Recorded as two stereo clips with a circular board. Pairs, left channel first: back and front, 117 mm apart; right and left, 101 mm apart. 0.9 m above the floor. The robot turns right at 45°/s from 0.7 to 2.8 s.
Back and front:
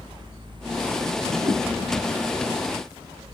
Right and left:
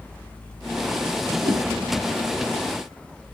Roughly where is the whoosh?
Ahead left.